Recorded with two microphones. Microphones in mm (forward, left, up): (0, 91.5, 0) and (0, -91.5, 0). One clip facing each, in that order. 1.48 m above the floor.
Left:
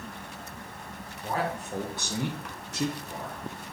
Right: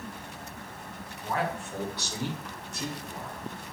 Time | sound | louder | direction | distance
1.2 | a man speaking | even | 30° left (ahead or behind) | 1.7 m